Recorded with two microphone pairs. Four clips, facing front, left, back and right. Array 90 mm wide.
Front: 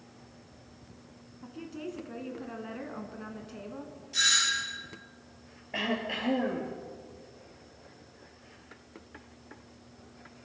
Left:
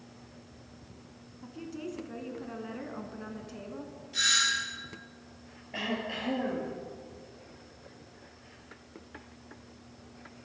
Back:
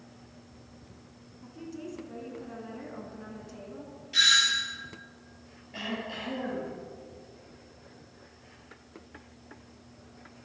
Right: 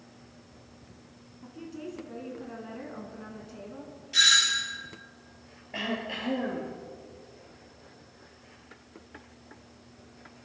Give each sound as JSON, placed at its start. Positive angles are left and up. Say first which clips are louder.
{"t": 1.4, "sound": "a woman speaking", "louder": "left 1 dB, front 1 dB", "azimuth_deg": 30, "distance_m": 1.2}
{"t": 4.1, "sound": "a doorbell", "louder": "right 3 dB, back 3 dB", "azimuth_deg": -130, "distance_m": 2.5}
{"t": 5.7, "sound": "throat clearing", "louder": "right 1 dB, front 4 dB", "azimuth_deg": -10, "distance_m": 2.5}